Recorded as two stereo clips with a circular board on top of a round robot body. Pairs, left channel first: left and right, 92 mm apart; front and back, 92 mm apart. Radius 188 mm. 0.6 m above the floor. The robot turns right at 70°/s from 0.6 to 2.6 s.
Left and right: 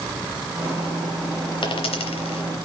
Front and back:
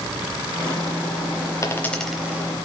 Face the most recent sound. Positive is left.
turn(degrees=125)